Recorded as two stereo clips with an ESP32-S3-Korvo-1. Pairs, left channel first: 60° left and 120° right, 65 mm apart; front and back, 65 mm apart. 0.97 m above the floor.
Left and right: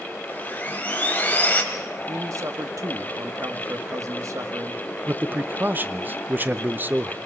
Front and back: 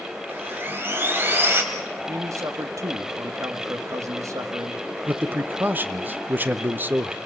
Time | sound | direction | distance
0.3 | sawing | 125° left | 2 m
2.1 | a man speaking | 150° right | 1.6 m
5.1 | a man speaking | 150° right | 0.7 m